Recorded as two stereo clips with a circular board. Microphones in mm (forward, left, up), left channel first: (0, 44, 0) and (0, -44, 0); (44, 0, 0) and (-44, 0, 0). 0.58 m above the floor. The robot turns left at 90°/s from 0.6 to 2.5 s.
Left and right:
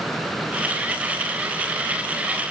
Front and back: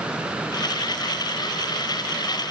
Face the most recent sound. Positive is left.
No sound to turn to.